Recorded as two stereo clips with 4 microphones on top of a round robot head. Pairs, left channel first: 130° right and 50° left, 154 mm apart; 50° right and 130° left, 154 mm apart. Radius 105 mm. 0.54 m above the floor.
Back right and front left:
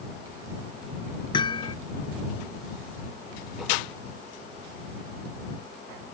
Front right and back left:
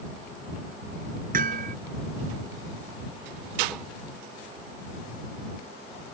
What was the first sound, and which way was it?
Hammering, 165° left.